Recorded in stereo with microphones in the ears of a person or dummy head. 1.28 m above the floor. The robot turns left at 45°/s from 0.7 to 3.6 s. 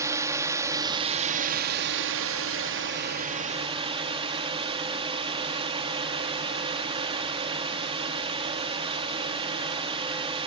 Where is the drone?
20° right; by 10.5 s 150° right.